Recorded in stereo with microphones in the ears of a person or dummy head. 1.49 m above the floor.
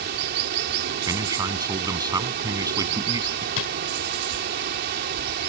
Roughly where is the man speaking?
Centre.